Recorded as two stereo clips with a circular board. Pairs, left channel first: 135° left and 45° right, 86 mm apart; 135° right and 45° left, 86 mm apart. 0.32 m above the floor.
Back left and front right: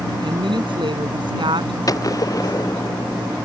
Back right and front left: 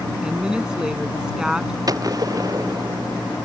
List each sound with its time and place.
0.2 s a woman speaking: 35° right
1.9 s a gunshot: 90° left